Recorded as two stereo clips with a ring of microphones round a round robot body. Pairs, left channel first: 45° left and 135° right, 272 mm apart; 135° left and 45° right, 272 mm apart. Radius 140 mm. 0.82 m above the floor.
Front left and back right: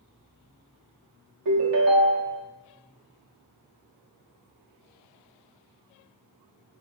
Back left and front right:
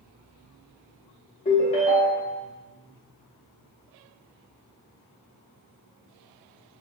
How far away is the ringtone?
About 0.7 m.